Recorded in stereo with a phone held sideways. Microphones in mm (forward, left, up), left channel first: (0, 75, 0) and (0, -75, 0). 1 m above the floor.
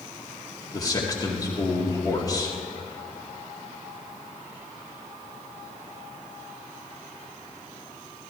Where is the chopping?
I don't hear chopping.